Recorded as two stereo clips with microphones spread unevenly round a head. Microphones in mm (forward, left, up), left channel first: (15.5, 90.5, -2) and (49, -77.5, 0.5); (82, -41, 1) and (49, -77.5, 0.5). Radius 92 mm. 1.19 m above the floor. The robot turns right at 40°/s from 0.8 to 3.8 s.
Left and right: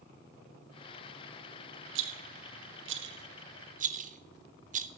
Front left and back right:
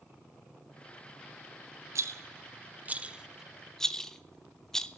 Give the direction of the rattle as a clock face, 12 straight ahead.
4 o'clock.